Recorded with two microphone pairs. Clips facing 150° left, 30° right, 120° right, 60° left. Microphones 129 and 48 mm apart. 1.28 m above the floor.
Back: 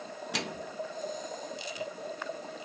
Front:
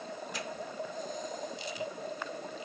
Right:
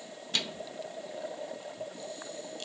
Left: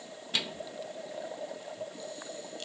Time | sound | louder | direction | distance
0.3 | a microwave | back 5 dB, even | 140° left | ?